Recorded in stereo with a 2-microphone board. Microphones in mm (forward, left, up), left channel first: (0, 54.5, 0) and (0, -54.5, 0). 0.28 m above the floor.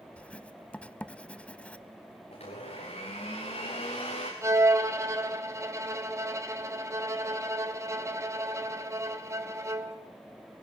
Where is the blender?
80° left, 5.5 m.